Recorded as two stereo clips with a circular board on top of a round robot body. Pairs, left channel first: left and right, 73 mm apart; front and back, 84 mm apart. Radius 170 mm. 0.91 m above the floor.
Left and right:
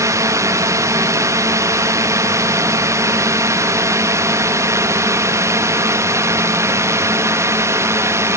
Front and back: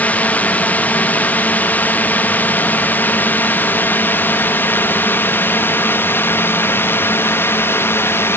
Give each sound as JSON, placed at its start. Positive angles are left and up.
{"t": 0.0, "sound": "a drone", "azimuth_deg": -65}